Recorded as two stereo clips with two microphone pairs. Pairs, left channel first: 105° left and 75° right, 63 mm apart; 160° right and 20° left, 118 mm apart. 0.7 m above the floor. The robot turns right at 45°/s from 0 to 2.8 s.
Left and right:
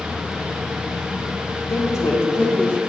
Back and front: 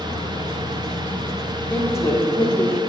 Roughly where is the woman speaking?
Behind left.